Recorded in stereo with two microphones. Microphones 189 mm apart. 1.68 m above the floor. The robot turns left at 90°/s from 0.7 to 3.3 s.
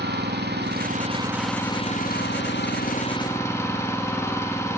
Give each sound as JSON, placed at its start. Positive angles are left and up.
{"t": 0.0, "sound": "an engine running", "azimuth_deg": -110, "distance_m": 2.5}